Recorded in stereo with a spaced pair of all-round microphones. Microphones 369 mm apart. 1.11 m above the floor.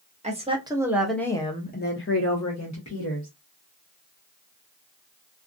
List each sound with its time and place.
0.2 s a woman speaking: 20° right (ahead or behind), 1.0 m; by 3.3 s 50° left (ahead or behind), 1.0 m